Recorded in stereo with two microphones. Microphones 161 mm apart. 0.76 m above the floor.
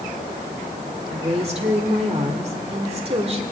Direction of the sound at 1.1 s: 40° right (ahead or behind).